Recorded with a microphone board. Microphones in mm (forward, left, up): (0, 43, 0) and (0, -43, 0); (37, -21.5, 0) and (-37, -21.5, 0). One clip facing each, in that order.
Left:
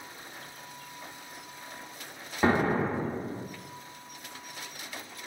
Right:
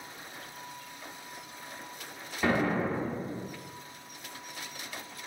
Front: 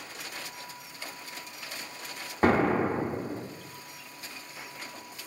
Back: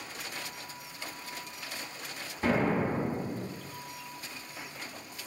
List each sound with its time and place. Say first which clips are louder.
2.4 s an explosion: left 2 dB, front 4 dB; 30° left, 0.6 m